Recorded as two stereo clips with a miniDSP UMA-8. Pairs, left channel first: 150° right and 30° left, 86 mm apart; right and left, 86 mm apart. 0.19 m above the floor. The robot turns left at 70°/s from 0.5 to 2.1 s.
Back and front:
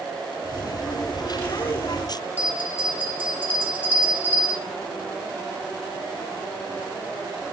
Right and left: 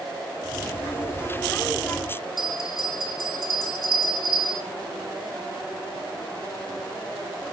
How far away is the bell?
About 3 m.